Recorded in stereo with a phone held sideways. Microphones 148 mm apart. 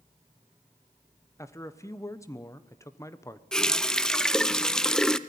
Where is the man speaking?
20° left (ahead or behind), 1.0 m.